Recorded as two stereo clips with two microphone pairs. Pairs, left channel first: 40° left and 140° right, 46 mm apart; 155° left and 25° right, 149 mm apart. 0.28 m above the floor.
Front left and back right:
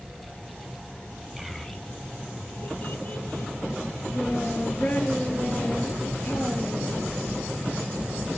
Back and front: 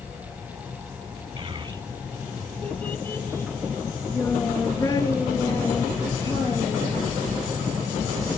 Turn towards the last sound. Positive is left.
turn(degrees=90)